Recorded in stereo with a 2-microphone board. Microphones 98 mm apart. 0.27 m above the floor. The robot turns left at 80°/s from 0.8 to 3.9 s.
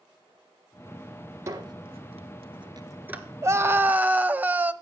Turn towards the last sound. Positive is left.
turn(degrees=-145)